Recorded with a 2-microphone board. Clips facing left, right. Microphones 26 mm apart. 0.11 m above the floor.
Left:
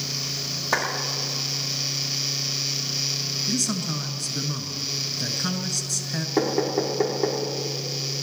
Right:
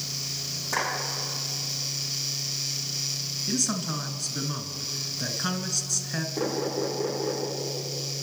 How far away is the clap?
About 5 m.